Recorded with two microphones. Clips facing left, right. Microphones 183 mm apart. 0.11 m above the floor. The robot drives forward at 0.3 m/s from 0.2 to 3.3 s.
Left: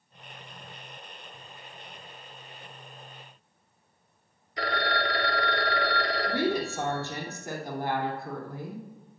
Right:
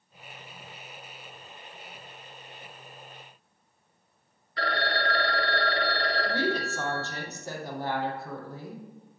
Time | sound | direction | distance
4.6 | a phone ringing | 20° left (ahead or behind) | 1.3 m
6.2 | a woman speaking | 15° left (ahead or behind) | 3 m